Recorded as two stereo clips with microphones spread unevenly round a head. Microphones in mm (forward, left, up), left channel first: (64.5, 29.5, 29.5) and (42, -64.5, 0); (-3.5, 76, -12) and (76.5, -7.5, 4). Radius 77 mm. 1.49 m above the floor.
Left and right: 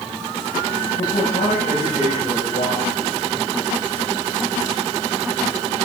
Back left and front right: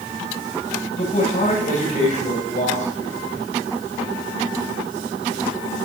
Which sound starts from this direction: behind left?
A man speaking, at 0.9 s.